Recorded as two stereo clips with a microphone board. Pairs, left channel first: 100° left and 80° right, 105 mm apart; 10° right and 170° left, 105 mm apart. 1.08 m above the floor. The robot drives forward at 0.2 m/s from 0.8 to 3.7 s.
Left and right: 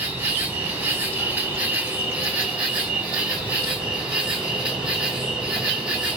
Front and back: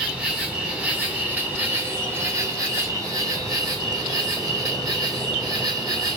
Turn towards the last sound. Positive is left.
turn(degrees=-155)